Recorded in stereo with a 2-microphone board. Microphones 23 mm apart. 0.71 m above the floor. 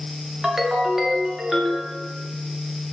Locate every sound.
0.4 s a ringtone: 20° right (ahead or behind), 0.7 m